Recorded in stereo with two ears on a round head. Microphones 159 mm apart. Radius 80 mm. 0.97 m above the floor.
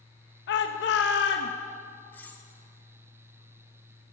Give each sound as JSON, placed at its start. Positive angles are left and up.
{"t": 0.5, "sound": "a shout", "side_deg": 65, "distance_m": 0.9}
{"t": 2.1, "sound": "cutlery clinking", "side_deg": 10, "distance_m": 1.5}